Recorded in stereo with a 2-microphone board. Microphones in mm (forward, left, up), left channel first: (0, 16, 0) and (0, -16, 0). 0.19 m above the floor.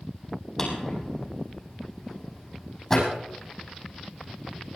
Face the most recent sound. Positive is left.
turn(degrees=20)  # may be behind; listen again after turning